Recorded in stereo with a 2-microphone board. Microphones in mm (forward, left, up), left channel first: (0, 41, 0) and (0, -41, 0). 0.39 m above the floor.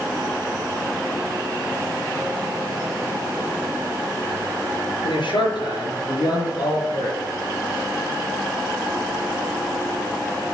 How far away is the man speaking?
About 5 m.